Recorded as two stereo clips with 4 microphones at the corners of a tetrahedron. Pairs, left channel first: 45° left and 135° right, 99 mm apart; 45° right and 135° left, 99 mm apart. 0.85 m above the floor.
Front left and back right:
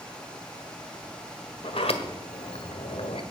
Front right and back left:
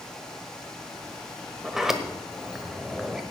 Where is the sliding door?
50° left, 1.3 m.